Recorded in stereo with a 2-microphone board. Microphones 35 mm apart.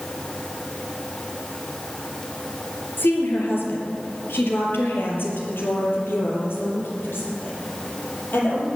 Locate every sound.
3.0 s a woman speaking: 75° left (ahead or behind), 4 m; by 8.7 s 80° left, 7 m